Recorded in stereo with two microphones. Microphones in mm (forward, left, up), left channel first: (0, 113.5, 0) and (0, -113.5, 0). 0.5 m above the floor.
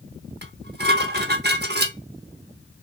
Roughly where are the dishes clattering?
Right.